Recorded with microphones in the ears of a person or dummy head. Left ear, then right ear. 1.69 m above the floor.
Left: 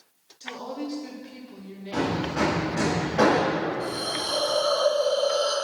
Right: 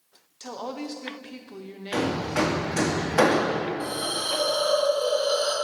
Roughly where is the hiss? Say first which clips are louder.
Even; centre.